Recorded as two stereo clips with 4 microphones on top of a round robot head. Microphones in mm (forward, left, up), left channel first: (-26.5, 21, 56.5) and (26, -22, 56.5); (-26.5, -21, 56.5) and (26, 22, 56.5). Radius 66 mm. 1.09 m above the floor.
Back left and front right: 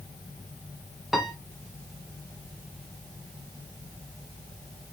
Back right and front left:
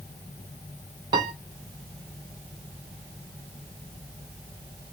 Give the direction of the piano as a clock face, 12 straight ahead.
10 o'clock.